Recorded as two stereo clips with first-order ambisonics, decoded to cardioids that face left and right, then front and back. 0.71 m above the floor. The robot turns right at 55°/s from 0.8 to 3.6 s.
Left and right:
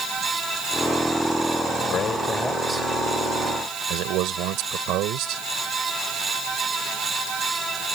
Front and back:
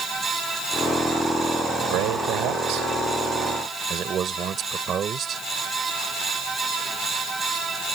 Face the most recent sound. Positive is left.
turn(degrees=-120)